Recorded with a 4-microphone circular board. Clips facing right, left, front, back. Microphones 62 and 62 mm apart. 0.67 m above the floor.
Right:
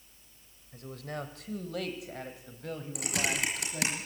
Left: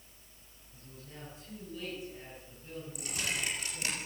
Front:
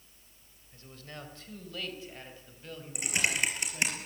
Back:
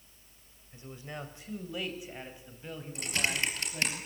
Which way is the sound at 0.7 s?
110° right.